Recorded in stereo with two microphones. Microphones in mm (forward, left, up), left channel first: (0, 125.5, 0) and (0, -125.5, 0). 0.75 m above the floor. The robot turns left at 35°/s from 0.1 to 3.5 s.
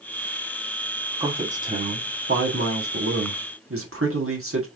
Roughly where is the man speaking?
Ahead.